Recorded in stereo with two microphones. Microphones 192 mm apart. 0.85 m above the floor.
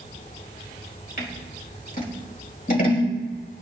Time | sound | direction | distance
1.2 | scissors | 50° left (ahead or behind) | 4 m